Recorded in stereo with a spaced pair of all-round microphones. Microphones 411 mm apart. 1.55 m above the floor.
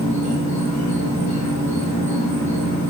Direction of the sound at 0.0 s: 20° left (ahead or behind).